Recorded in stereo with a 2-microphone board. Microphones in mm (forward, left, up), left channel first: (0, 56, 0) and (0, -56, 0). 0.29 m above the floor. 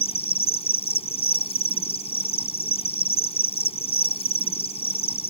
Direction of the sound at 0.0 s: 65° left (ahead or behind).